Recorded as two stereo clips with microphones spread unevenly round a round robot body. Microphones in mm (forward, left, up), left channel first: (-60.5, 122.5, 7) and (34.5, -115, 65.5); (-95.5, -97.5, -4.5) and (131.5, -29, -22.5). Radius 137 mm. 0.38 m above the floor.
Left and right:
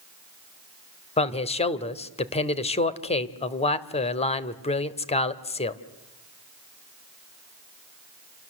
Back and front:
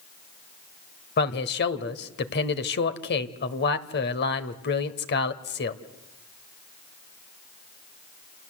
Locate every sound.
1.2 s a man speaking: 155° left, 1.5 m